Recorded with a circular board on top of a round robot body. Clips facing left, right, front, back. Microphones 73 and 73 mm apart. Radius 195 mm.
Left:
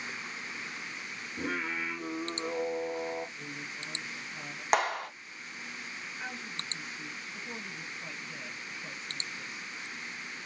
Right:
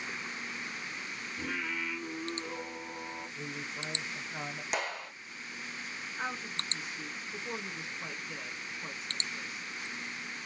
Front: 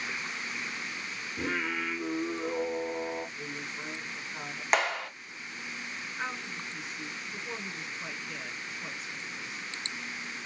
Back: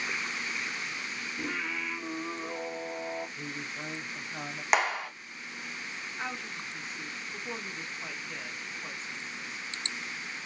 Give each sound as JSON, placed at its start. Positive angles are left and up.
{"t": 1.4, "sound": "singing", "azimuth_deg": 45, "distance_m": 1.6}
{"t": 3.4, "sound": "a woman speaking", "azimuth_deg": -115, "distance_m": 2.0}
{"t": 4.7, "sound": "a clap", "azimuth_deg": 100, "distance_m": 1.7}
{"t": 6.2, "sound": "a woman speaking", "azimuth_deg": -85, "distance_m": 3.0}